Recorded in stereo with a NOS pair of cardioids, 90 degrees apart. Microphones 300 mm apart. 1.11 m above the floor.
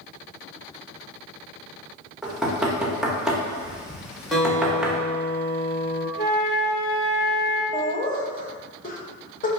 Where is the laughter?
30° left, 1.0 m.